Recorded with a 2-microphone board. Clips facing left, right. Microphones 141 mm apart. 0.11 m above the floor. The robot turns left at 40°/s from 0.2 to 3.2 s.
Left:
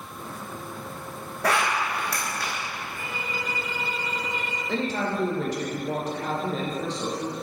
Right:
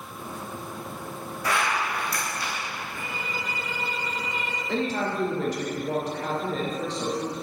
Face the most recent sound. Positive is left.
turn(degrees=0)  # may be behind; listen again after turning